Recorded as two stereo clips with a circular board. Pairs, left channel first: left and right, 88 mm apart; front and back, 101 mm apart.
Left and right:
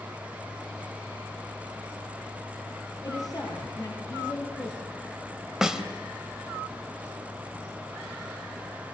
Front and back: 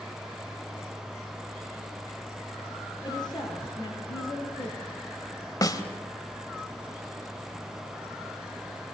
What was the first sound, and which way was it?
A woman speaking, 45° left.